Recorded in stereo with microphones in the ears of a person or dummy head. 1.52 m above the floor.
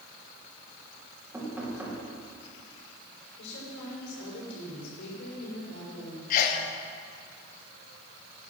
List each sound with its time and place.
1.3 s knocking: 15° right (ahead or behind), 3 m
3.4 s a woman speaking: 70° left (ahead or behind), 6 m
6.3 s a sneeze: 50° left (ahead or behind), 1.6 m